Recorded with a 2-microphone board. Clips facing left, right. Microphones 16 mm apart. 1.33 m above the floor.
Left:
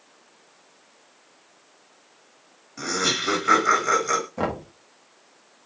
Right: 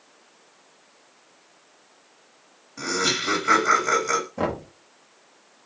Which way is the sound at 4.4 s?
Centre (ahead or behind).